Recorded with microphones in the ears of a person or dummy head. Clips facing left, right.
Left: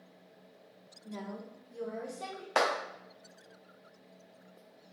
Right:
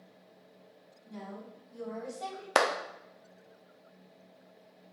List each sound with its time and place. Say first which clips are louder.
1.1 s a woman speaking: left 2 dB; 65° left (ahead or behind), 1.2 m; by 2.5 s 25° left (ahead or behind), 1.7 m
2.5 s a clap: right 2 dB; 50° right (ahead or behind), 0.5 m